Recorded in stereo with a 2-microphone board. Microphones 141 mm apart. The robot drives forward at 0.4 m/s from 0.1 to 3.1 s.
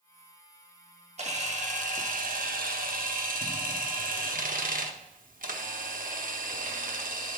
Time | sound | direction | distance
1.2 | a camera shutter | 50° right (ahead or behind) | 1.0 m